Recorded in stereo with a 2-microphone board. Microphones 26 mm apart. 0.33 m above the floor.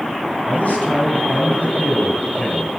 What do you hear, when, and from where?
0.5 s a man speaking: 65° left (ahead or behind), 3 m